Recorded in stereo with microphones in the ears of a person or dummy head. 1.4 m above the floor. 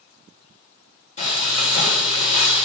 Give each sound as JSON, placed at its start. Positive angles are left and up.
{"t": 1.2, "sound": "frying", "side_deg": 35, "distance_m": 3.5}